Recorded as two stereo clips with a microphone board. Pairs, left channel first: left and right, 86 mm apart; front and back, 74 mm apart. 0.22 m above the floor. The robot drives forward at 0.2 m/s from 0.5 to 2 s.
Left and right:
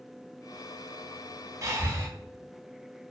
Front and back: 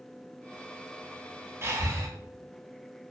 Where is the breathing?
135° right, 0.5 m; by 2.1 s 140° right, 0.6 m.